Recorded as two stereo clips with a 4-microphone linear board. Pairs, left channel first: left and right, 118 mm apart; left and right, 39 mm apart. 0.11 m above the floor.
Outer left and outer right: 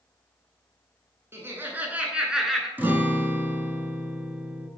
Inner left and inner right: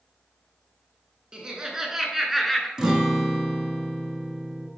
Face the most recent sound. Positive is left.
turn(degrees=-15)  # may be behind; listen again after turning